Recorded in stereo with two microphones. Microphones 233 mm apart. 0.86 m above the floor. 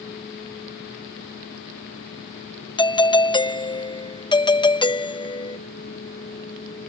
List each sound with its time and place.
2.8 s a doorbell: 20° left (ahead or behind)